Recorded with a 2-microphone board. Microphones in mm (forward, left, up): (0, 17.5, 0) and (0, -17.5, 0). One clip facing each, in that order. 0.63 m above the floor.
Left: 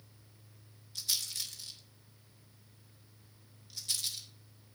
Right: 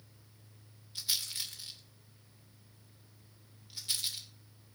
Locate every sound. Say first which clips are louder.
0.9 s a rattle: right 1 dB; 20° right (ahead or behind), 2.5 m